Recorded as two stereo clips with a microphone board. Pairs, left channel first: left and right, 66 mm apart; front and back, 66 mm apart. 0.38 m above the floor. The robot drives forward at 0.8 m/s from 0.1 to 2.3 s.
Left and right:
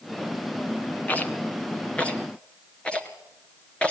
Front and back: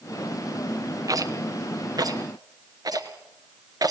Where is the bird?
No bird in this recording.